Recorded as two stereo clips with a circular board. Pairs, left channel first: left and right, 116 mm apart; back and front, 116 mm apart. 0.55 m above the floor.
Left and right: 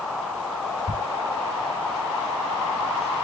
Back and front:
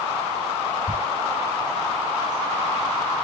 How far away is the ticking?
About 1.7 m.